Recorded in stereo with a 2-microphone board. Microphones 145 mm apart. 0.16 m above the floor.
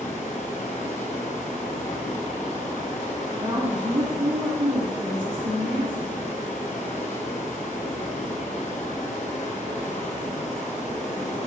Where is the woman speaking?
35° right (ahead or behind), 1.8 m.